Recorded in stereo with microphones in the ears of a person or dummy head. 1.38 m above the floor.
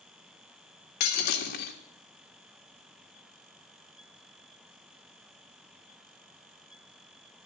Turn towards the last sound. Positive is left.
turn(degrees=50)  # may be behind; listen again after turning